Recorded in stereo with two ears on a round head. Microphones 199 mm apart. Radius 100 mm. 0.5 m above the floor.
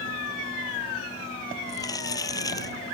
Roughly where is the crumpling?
Centre.